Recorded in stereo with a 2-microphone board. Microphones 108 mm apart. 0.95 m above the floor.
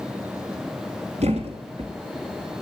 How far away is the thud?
About 2.5 m.